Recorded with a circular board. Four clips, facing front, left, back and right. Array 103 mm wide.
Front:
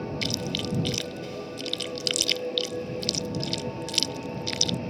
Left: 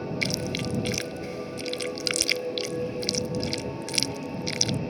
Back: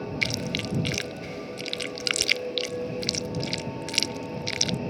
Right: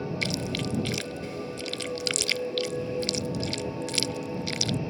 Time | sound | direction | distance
0.2 | chewing | 170° left | ?